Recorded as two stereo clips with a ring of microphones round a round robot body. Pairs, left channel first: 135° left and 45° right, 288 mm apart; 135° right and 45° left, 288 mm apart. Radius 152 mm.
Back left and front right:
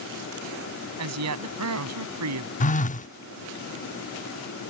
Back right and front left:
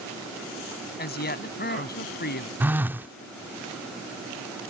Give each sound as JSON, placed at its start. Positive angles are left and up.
{"t": 1.0, "sound": "a woman speaking", "azimuth_deg": -80}
{"t": 2.6, "sound": "a phone buzzing", "azimuth_deg": 120}